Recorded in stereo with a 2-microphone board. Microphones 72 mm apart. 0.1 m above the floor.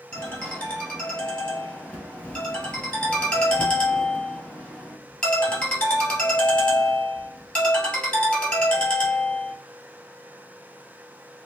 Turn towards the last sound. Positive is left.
turn(degrees=15)  # may be behind; listen again after turning